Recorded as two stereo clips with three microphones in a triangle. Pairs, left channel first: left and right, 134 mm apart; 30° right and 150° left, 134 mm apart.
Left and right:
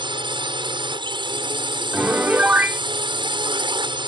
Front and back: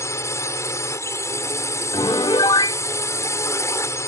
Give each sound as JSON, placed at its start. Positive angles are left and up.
{"t": 0.0, "sound": "a drone", "azimuth_deg": -85}
{"t": 1.9, "sound": "a piano", "azimuth_deg": -25}